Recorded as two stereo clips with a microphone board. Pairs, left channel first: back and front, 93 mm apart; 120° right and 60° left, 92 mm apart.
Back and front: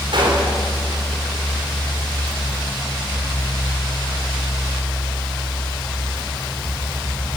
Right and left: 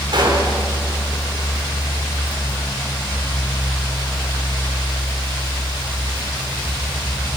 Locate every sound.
0.1 s a gunshot: 30° left, 4 m